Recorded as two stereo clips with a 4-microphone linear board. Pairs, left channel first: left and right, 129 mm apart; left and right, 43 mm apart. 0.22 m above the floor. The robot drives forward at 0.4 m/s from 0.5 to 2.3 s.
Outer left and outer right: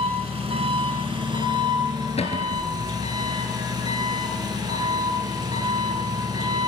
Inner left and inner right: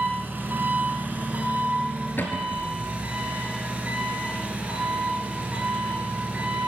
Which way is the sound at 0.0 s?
55° right (ahead or behind).